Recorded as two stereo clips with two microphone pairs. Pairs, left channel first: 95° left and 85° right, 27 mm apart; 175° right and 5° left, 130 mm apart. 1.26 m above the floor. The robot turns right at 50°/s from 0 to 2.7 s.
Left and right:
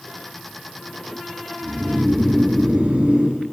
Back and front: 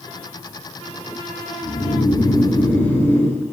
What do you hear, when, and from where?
1.6 s snoring: 150° right, 2.5 m; by 3.4 s 95° right, 2.5 m